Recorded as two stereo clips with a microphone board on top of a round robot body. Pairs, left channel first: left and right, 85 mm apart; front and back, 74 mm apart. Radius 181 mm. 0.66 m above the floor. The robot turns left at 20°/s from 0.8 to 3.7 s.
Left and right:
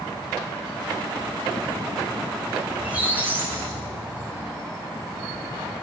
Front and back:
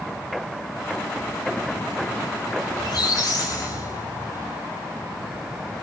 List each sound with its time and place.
2.7 s a squeak: 15° right, 6 m; by 4.5 s 35° right, 6 m